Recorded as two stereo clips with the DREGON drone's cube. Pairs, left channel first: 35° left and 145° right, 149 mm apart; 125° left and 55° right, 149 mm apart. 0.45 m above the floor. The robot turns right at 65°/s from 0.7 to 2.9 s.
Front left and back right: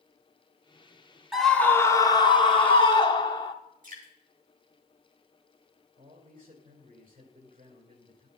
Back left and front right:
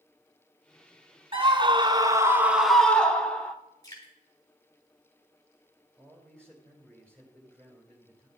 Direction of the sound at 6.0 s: 155° right.